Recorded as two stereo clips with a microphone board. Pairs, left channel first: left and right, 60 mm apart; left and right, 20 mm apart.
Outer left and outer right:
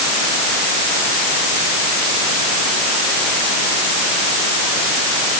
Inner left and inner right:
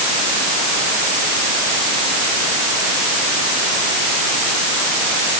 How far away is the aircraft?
No aircraft in this recording.